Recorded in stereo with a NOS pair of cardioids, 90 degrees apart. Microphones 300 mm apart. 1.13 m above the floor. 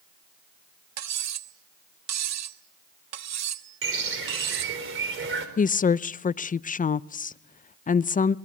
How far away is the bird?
About 4 m.